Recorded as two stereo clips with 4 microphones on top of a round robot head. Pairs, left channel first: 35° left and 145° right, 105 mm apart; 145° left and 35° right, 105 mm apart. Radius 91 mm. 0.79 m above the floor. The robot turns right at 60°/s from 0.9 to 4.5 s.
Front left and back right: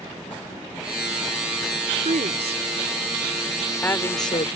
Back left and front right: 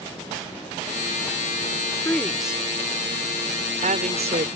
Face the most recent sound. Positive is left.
turn(degrees=0)